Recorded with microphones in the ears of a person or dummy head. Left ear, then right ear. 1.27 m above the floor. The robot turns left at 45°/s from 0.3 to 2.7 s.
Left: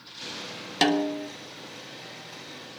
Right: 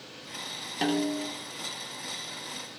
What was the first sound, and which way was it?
A snare drum, 40° left (ahead or behind).